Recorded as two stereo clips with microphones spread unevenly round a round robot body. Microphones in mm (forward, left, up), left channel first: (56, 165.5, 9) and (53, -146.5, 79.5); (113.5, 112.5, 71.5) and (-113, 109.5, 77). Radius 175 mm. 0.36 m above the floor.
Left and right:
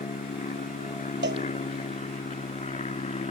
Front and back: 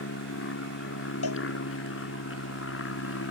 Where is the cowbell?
35° right.